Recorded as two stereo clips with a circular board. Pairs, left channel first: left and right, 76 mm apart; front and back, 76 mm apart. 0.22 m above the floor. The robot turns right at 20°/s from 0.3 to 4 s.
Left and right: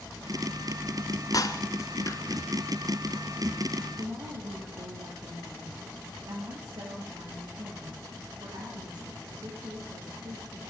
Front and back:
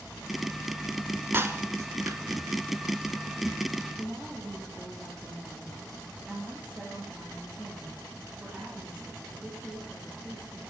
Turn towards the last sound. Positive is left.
turn(degrees=-100)